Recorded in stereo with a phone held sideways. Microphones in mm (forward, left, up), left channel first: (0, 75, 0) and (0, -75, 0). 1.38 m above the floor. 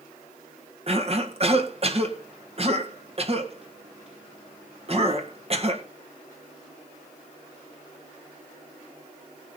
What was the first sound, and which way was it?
A cough, 45° right (ahead or behind).